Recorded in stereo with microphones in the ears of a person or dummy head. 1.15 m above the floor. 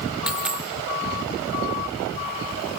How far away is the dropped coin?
About 0.9 m.